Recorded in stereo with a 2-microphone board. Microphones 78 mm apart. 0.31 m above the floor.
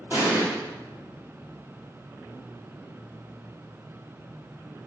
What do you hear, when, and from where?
0.1 s an explosion: 25° right (ahead or behind), 1.9 m